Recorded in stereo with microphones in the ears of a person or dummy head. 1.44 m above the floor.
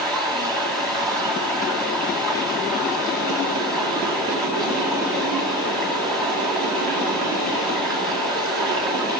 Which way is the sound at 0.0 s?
5° left (ahead or behind).